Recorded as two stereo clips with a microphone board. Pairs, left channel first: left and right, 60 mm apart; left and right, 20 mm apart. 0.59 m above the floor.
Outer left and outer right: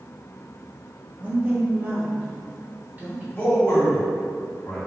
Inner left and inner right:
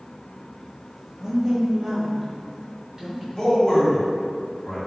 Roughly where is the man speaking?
Left.